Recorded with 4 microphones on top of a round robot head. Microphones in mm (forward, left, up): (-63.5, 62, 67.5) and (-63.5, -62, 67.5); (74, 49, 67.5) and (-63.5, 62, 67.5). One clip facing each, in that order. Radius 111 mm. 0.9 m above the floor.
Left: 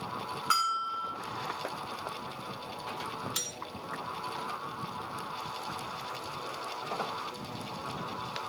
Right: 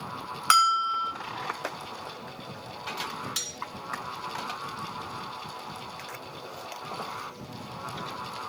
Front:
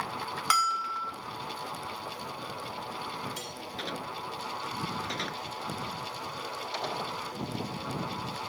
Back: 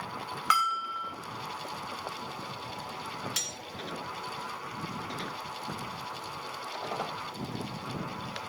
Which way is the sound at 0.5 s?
70° right.